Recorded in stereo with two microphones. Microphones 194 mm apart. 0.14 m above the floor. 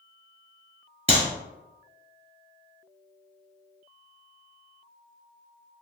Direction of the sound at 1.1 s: 30° left (ahead or behind).